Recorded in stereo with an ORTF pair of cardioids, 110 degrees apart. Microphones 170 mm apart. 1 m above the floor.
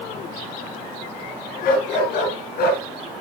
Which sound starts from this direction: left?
A dog barking, at 1.6 s.